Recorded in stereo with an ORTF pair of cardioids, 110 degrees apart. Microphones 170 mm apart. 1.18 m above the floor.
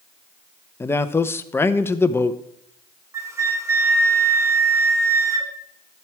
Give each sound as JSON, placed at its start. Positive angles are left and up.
{"t": 0.8, "sound": "a man speaking", "azimuth_deg": 15, "distance_m": 0.9}
{"t": 3.1, "sound": "a flute", "azimuth_deg": -15, "distance_m": 1.9}